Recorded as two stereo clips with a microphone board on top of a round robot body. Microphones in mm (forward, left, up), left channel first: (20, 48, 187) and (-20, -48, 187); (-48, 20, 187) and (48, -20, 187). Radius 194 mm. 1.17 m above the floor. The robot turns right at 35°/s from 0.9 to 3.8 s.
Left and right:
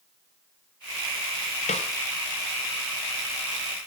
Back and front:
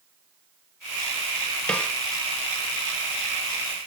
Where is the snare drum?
75° left, 0.7 m; by 1.9 s 85° left, 0.7 m.